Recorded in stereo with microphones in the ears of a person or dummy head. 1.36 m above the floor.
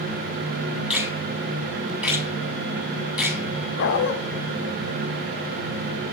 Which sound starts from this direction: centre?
A finger snap, at 0.9 s.